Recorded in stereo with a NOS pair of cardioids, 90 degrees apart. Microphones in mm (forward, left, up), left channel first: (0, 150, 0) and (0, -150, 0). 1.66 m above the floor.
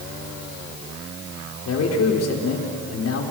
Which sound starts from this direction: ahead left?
A man speaking, at 1.6 s.